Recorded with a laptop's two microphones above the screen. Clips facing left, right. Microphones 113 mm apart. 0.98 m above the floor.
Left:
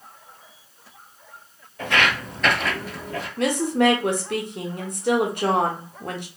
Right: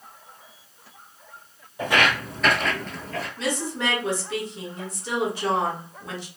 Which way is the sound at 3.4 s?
60° left (ahead or behind).